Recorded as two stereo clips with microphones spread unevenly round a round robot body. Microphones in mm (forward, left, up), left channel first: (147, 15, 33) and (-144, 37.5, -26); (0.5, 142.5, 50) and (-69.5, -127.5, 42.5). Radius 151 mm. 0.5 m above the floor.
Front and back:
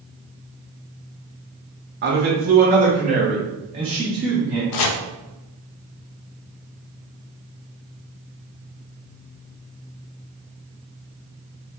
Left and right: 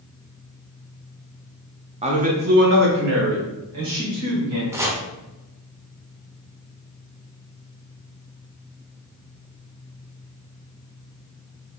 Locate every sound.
2.0 s a man speaking: 165° right, 1.0 m; by 4.6 s 110° right, 2 m
4.7 s chopping: 25° right, 0.5 m